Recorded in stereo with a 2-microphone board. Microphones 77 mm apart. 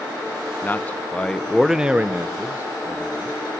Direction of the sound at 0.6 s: 25° left (ahead or behind).